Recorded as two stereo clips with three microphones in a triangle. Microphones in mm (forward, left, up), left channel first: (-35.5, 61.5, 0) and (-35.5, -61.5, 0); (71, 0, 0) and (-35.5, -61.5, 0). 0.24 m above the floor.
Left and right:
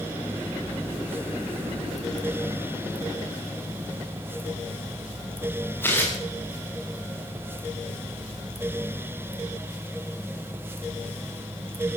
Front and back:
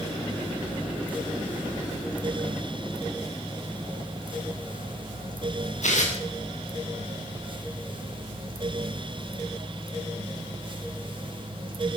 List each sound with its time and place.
5.8 s tearing paper: 15° left, 6 m